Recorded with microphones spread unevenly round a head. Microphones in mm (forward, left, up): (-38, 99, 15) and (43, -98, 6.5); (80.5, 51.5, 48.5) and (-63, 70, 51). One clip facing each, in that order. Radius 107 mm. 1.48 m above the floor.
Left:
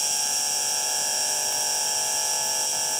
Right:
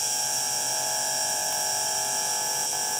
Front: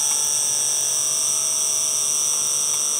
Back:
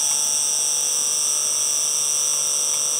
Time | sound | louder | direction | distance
0.0 | an insect | even, front 1 dB | 85° left | ?